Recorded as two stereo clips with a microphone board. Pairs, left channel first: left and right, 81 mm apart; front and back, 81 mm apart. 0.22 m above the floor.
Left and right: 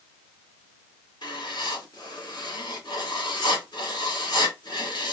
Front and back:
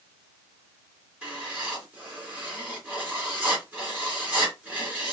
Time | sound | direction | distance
1.2 | writing | 110° left | 2.5 m